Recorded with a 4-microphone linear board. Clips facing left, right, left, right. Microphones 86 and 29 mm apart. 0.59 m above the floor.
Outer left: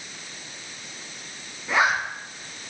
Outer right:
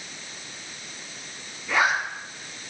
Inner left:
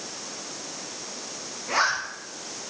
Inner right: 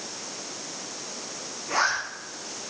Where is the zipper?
20° left (ahead or behind), 4 m.